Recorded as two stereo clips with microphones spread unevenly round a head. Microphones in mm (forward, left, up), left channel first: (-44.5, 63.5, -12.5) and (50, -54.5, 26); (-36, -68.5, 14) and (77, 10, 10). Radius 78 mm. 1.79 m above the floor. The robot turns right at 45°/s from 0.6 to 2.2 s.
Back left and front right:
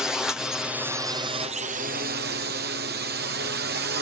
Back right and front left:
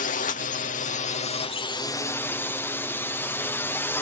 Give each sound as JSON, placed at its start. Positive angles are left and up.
{"t": 0.0, "sound": "a drone", "azimuth_deg": -145}